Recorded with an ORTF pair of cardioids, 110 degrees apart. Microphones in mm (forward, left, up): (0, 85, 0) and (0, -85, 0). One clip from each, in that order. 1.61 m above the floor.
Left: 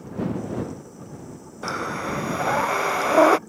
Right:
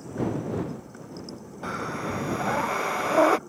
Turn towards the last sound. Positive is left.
turn(degrees=20)